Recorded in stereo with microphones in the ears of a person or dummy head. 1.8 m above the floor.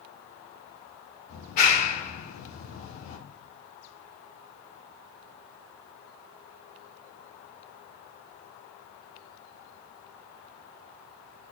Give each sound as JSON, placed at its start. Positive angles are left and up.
{"t": 1.3, "sound": "a clap", "side_deg": 50, "distance_m": 2.0}